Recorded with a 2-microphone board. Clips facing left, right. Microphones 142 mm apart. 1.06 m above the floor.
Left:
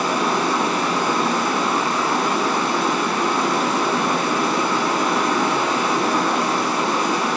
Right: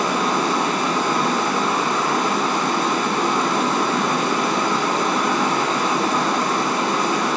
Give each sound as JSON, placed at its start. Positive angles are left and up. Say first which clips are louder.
{"t": 0.0, "sound": "running water", "louder": "even", "side_deg": 5, "distance_m": 1.9}